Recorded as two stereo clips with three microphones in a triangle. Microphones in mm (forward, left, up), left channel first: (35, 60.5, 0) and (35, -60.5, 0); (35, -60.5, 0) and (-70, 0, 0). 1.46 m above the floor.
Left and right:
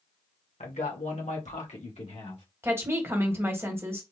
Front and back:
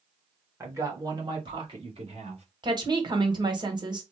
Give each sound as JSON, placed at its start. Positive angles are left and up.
{"t": 0.6, "sound": "a man speaking", "azimuth_deg": 85, "distance_m": 1.2}
{"t": 2.6, "sound": "a woman speaking", "azimuth_deg": -160, "distance_m": 1.1}